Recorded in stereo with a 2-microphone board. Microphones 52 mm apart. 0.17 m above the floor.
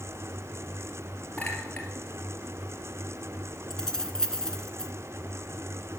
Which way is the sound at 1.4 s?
25° left (ahead or behind).